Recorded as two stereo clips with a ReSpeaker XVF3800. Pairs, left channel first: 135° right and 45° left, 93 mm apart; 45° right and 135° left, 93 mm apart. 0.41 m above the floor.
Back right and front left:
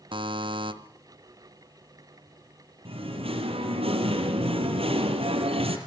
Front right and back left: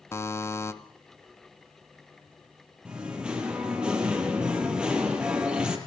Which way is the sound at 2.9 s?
55° left.